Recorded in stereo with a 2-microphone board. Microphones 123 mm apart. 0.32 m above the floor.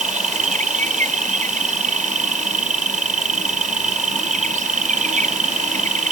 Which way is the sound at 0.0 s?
75° right (ahead or behind).